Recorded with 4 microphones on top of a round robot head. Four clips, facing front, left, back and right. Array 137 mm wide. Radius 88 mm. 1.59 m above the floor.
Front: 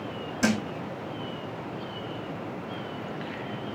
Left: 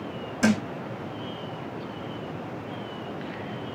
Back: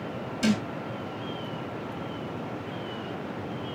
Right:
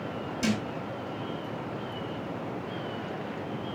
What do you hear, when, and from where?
0.4 s a thud: 60° left, 1.3 m